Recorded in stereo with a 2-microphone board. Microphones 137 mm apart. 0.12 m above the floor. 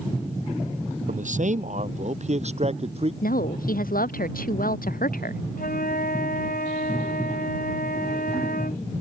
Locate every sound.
1.1 s a man speaking: 65° right (ahead or behind); by 3.1 s 45° right (ahead or behind)
3.2 s a woman speaking: 85° left
5.6 s a flute: 85° left